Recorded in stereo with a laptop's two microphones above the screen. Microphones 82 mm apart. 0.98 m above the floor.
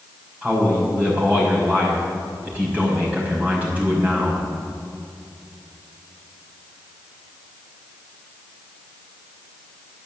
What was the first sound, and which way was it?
A man speaking, 20° right (ahead or behind).